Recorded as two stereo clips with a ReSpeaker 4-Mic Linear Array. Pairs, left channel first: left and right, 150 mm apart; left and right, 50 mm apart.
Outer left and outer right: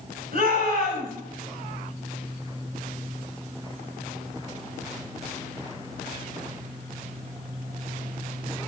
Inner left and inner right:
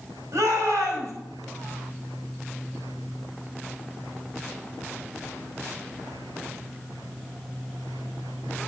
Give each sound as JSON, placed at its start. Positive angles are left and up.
{"t": 0.3, "sound": "a shout", "side_deg": -80, "distance_m": 5.5}